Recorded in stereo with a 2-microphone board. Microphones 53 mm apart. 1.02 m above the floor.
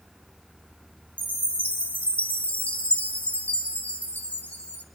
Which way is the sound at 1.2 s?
30° left (ahead or behind).